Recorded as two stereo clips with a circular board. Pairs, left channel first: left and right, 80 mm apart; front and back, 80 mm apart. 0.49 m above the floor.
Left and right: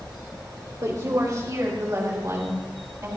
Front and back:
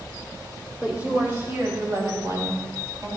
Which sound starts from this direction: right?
A woman speaking, at 0.8 s.